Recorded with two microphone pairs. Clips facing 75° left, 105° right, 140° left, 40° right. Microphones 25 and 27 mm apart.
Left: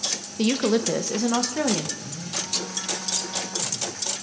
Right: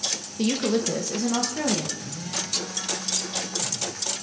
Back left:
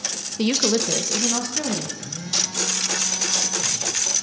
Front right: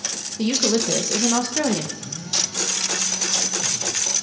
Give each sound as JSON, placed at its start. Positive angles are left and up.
{"t": 0.4, "sound": "a woman speaking", "azimuth_deg": 130, "distance_m": 0.7}
{"t": 2.0, "sound": "a phone buzzing", "azimuth_deg": 165, "distance_m": 4.0}